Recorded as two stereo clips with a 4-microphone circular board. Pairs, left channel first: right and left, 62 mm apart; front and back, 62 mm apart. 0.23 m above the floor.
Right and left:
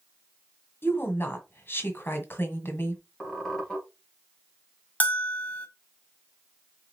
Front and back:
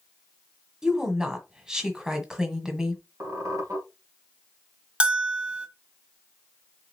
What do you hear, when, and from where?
0.8 s a woman speaking: 105° right, 1.5 m
3.2 s a squeak: 170° right, 3 m
5.0 s a bell: 120° right, 1.1 m